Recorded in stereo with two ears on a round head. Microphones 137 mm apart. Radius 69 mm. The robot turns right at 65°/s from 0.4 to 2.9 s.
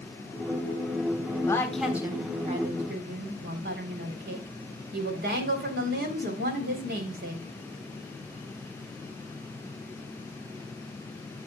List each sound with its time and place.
1.5 s a woman speaking: 160° left, 3.5 m; by 7.5 s 110° right, 3.5 m